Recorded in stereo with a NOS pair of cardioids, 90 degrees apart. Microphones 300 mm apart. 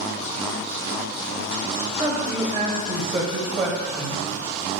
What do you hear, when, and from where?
2.0 s a man speaking: 20° right, 0.8 m